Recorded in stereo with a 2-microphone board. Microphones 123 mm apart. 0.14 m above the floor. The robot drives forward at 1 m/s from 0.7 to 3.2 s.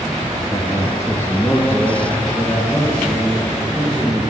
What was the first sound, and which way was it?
A man speaking, 25° left (ahead or behind).